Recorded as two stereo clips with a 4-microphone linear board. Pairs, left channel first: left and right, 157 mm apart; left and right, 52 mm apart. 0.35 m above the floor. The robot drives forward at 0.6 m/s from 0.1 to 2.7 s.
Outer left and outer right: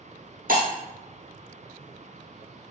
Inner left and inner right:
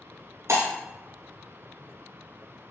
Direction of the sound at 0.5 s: 80° right.